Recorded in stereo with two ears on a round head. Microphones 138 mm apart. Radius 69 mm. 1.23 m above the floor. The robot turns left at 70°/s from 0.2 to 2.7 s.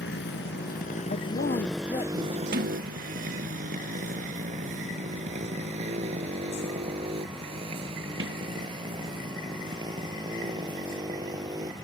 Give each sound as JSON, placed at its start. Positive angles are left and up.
{"t": 0.0, "sound": "a motorcycle", "side_deg": 80}
{"t": 1.1, "sound": "a woman speaking", "azimuth_deg": 105}
{"t": 2.5, "sound": "a sliding door", "side_deg": -65}